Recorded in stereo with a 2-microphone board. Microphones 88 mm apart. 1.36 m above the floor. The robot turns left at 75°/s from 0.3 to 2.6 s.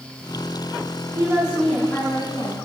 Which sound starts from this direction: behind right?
A woman speaking, at 1.1 s.